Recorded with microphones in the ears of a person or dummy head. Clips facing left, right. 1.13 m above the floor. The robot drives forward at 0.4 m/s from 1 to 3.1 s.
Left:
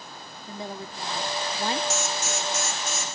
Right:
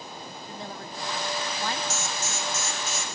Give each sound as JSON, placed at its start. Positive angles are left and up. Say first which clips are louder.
{"t": 0.5, "sound": "a woman speaking", "louder": "left 5 dB", "side_deg": 20, "distance_m": 0.8}
{"t": 1.9, "sound": "an alarm", "louder": "left 4 dB", "side_deg": 50, "distance_m": 1.0}